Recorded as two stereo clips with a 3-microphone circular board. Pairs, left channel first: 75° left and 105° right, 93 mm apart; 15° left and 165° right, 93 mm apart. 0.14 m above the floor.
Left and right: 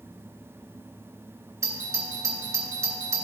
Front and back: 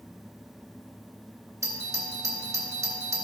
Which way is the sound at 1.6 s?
130° right.